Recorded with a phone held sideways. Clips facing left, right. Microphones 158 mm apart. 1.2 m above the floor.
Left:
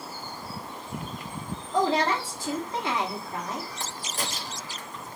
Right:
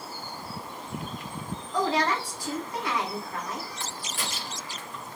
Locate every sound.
1.7 s a woman speaking: 25° left (ahead or behind), 1.2 m
3.8 s a crack: 40° left (ahead or behind), 0.7 m